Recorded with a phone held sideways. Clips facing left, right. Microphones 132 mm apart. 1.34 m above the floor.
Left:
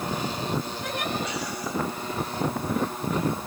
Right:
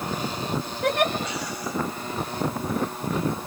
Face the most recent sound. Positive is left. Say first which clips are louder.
# right 8 dB
turn(degrees=-65)  # may be behind; listen again after turning